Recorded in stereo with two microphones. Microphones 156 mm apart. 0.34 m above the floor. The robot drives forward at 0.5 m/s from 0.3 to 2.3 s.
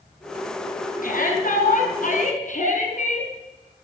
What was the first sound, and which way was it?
A shout, 60° left (ahead or behind).